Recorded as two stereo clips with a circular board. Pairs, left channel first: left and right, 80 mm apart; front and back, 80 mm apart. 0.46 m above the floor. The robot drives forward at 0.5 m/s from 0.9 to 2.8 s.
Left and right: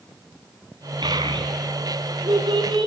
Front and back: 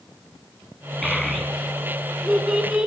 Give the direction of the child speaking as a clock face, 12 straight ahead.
3 o'clock.